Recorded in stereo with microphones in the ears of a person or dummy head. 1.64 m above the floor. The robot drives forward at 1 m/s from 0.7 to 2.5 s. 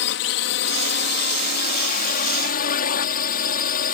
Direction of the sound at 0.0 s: 70° left (ahead or behind).